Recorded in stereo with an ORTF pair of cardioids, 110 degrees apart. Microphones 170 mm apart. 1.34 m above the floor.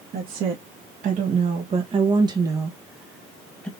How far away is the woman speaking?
About 1.8 m.